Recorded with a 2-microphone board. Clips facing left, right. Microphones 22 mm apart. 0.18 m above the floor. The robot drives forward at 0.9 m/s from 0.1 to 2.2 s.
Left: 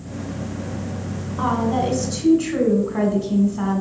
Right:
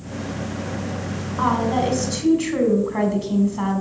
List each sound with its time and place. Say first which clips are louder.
1.4 s a woman speaking: right 1 dB; 25° right (ahead or behind), 1.6 m; by 3.8 s 30° right (ahead or behind), 1.4 m